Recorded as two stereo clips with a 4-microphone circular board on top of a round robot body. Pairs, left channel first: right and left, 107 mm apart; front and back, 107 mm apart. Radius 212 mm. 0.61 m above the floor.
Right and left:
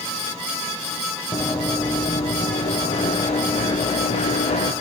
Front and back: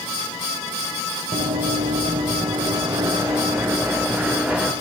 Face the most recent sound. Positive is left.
turn(degrees=-100)